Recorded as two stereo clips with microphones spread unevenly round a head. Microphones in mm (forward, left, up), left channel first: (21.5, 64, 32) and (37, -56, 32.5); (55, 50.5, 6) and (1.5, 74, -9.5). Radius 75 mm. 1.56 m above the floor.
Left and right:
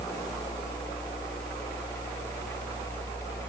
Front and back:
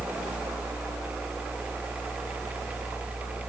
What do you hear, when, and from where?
Only background noise.